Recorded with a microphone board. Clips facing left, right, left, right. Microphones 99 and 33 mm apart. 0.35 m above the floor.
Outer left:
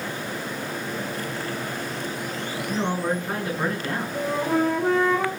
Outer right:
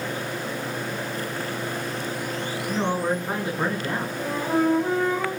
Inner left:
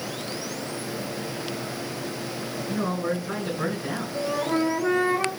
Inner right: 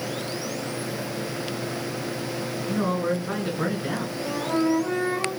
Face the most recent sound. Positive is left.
turn(degrees=80)